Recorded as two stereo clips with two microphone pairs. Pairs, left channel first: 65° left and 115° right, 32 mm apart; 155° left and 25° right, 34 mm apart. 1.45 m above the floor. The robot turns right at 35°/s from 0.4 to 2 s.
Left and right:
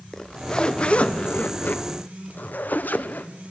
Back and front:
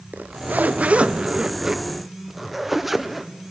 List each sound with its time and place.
0.1 s a zipper: straight ahead, 1.0 m; by 3.3 s 55° left, 1.0 m